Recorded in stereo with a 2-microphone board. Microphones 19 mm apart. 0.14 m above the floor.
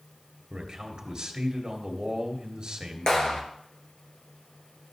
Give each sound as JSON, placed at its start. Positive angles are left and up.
{"t": 0.5, "sound": "a man speaking", "side_deg": -35, "distance_m": 2.5}
{"t": 3.1, "sound": "a clap", "side_deg": 45, "distance_m": 2.0}